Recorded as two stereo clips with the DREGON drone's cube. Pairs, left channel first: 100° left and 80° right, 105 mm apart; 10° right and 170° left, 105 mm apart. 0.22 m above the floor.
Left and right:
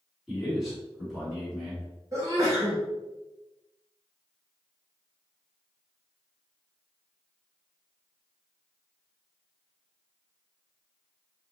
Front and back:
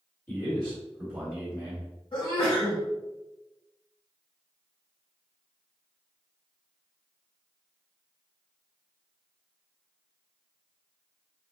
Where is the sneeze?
25° right, 1.9 m.